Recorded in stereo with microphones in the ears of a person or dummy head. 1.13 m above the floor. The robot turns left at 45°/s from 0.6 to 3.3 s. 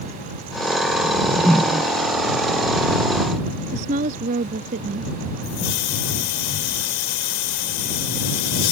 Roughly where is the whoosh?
Ahead left.